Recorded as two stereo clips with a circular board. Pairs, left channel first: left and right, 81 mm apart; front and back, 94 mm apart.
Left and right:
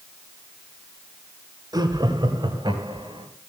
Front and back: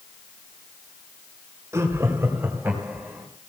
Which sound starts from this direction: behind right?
Laughter, at 1.7 s.